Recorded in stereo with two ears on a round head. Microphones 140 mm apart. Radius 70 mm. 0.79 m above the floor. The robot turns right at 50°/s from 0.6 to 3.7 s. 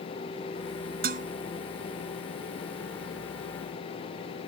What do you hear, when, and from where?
1.0 s dishes clattering: 60° right (ahead or behind); by 1.3 s 50° right (ahead or behind)